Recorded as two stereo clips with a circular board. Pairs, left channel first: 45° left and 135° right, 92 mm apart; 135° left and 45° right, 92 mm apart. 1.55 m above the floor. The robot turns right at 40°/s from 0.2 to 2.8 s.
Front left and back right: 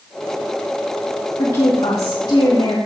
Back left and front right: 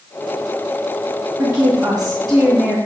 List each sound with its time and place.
1.4 s a woman speaking: 10° left, 2.5 m; by 2.8 s 65° left, 2.5 m